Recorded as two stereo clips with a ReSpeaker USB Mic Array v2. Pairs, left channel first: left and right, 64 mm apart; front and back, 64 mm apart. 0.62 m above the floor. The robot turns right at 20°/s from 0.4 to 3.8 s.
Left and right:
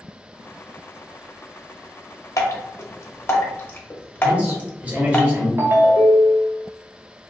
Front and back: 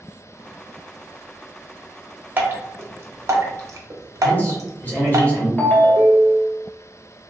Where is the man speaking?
35° right, 1.1 m.